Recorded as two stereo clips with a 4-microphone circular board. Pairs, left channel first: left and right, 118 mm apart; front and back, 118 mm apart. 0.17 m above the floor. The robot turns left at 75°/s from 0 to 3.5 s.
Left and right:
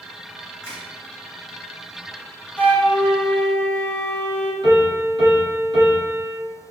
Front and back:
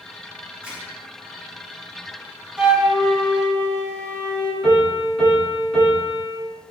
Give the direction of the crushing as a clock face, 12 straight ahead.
8 o'clock.